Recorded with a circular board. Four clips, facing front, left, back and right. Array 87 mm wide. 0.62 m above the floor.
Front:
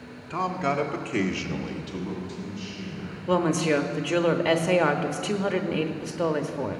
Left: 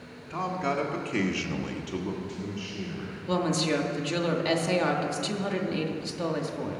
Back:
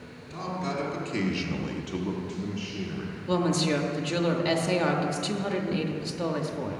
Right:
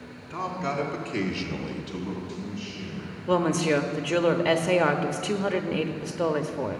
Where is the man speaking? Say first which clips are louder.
Left 1 dB, front 6 dB; straight ahead, 1.7 m; by 3.2 s 160° left, 2 m.